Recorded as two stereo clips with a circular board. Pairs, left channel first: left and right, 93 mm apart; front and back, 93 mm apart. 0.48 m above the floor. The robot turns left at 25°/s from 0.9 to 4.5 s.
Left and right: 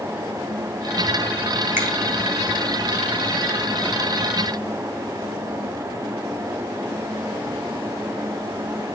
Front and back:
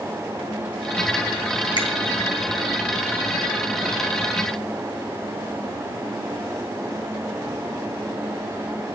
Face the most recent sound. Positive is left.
turn(degrees=-90)